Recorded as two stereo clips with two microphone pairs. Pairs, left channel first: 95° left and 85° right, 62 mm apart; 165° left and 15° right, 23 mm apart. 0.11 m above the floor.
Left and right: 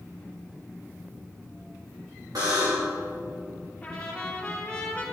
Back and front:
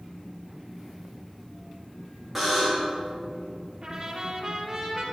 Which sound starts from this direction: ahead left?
A trumpet, at 3.8 s.